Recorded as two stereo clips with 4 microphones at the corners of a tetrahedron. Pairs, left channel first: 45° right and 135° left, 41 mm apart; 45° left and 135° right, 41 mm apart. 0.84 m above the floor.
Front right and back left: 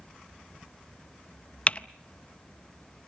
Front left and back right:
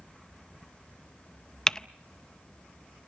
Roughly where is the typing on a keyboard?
Ahead.